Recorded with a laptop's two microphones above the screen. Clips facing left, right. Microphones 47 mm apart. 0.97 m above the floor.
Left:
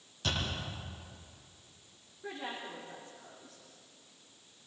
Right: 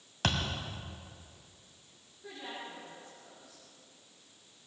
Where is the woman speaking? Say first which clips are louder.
Left 3 dB; 25° left (ahead or behind), 2.5 m.